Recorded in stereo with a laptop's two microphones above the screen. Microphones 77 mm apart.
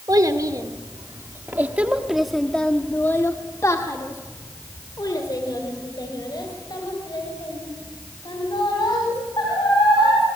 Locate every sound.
0.1 s a child speaking: 55° right (ahead or behind), 1.8 m; by 10.2 s 75° left (ahead or behind), 5.5 m